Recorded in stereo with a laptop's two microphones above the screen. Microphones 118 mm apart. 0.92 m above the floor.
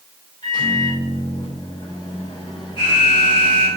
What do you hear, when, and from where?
0.4 s a microwave: 40° left (ahead or behind), 3.5 m
2.8 s an alarm: 45° left (ahead or behind), 5 m